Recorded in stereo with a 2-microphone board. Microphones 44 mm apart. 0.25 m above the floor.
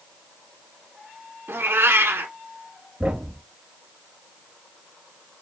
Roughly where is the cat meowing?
Right.